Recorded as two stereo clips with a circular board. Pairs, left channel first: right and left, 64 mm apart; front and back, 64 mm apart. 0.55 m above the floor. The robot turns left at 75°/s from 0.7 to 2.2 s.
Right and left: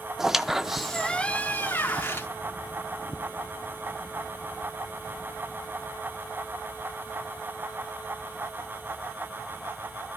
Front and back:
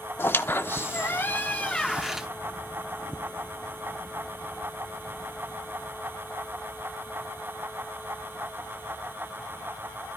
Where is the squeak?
10° left, 0.6 m; by 2.3 s 100° right, 0.6 m.